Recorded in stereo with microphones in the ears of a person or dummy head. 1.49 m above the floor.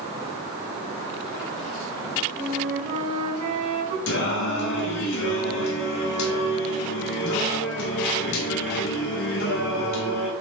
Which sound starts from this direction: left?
Singing, at 4.1 s.